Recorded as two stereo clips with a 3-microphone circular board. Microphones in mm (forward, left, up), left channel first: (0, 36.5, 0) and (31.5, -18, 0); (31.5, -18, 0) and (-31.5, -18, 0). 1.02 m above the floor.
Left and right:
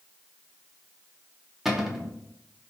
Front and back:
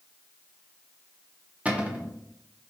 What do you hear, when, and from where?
1.6 s a cupboard door: 140° right, 0.8 m